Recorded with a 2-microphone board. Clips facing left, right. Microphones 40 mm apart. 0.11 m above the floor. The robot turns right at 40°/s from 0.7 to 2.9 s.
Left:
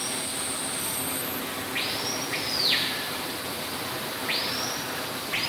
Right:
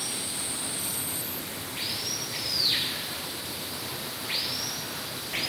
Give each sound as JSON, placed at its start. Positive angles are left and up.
{"t": 0.0, "sound": "running water", "azimuth_deg": 25, "distance_m": 2.5}